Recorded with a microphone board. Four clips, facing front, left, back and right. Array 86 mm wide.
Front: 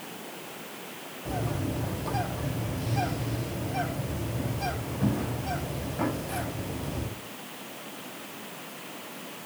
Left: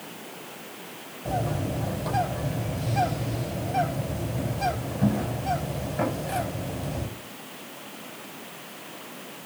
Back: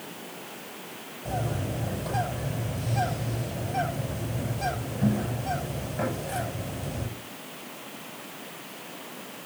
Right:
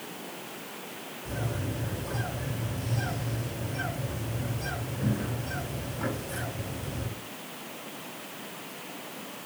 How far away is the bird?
About 9 m.